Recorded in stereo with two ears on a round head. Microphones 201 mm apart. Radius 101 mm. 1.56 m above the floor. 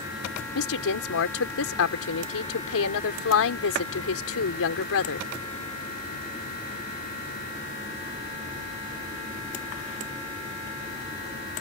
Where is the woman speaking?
70° left (ahead or behind).